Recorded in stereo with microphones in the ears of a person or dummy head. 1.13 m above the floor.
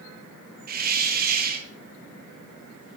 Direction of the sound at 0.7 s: 45° right (ahead or behind).